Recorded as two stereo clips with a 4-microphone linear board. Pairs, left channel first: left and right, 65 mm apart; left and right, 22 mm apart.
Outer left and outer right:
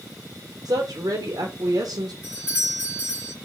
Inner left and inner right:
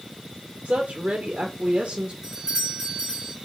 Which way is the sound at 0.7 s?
65° right (ahead or behind).